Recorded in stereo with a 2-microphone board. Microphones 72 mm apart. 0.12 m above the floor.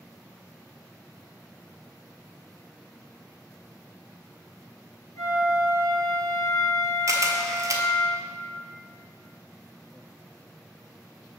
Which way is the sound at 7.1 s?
45° right (ahead or behind).